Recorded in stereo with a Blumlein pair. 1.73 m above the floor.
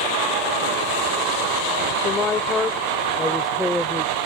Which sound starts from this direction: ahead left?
A woman speaking, at 2.0 s.